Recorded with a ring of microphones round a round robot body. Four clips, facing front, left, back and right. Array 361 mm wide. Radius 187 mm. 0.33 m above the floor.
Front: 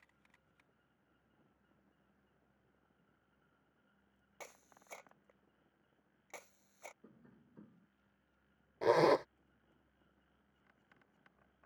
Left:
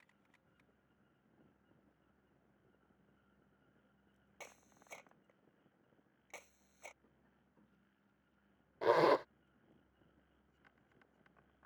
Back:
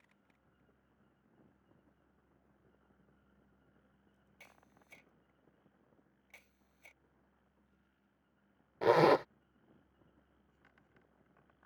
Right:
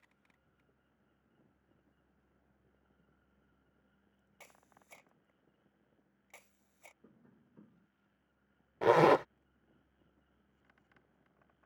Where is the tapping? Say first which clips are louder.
Right 8 dB, front 9 dB; 35° right.